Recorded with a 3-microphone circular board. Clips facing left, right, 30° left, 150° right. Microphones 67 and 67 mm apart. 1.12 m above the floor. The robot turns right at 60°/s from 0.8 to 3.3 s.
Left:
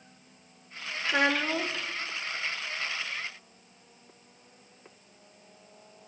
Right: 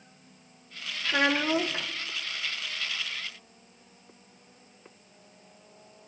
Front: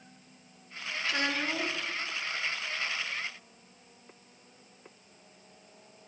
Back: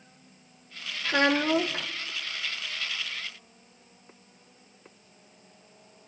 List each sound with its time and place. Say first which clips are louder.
1.1 s a child speaking: right 1 dB, back 8 dB; 170° left, 0.5 m; by 1.9 s 140° right, 0.5 m